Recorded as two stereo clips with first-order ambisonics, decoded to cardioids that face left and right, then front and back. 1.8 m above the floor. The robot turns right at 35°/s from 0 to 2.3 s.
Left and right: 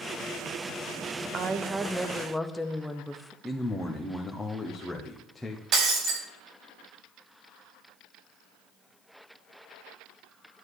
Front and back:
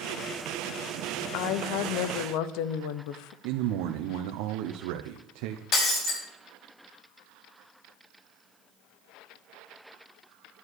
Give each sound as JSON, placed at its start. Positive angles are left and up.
{"t": 1.3, "sound": "a woman speaking", "azimuth_deg": -30, "distance_m": 0.9}
{"t": 3.4, "sound": "a man speaking", "azimuth_deg": 175, "distance_m": 1.2}
{"t": 5.7, "sound": "breaking glass", "azimuth_deg": -50, "distance_m": 3.0}